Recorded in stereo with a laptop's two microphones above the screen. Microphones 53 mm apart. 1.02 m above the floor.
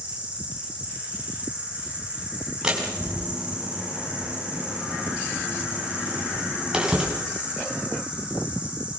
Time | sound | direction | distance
0.0 | an insect | 25° right (ahead or behind) | 3 m
2.6 | a door slam | 15° right (ahead or behind) | 6 m